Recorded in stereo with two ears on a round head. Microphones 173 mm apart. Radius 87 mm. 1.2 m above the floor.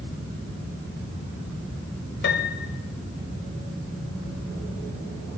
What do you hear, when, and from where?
2.2 s a piano: 65° left (ahead or behind), 2 m